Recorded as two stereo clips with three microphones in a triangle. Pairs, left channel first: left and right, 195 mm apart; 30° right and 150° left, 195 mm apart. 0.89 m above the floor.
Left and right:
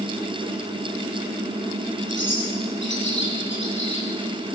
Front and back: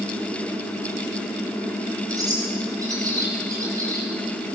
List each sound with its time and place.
2.1 s a bird: 80° left, 5.5 m